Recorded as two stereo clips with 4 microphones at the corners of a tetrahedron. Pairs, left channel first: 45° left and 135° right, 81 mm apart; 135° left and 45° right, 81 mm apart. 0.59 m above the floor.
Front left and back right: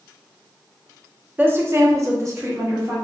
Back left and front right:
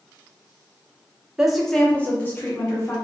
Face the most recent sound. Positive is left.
turn(degrees=180)